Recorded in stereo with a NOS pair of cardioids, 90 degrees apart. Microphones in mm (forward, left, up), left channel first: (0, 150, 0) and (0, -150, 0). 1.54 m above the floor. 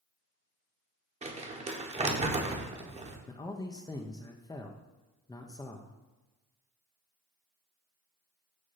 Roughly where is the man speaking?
Ahead.